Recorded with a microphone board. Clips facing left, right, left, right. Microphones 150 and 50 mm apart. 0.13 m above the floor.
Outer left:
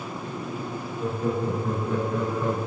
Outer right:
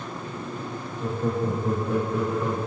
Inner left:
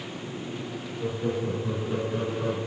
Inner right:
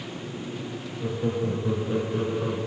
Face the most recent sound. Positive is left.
turn(degrees=0)  # may be behind; listen again after turning